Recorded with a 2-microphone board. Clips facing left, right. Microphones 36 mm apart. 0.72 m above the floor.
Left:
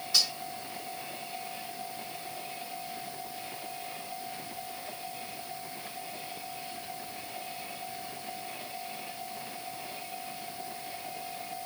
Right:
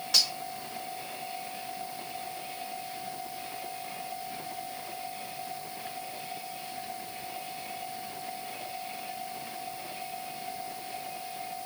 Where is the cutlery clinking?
65° right (ahead or behind), 3 m.